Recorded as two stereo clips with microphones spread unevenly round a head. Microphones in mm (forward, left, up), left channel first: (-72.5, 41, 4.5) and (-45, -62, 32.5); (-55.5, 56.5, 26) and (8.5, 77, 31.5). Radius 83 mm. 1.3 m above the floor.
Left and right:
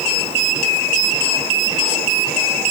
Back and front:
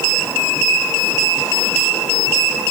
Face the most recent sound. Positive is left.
No sound to turn to.